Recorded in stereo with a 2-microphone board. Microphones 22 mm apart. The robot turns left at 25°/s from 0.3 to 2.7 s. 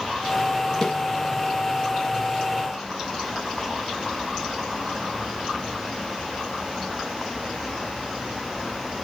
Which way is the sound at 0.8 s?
20° left (ahead or behind).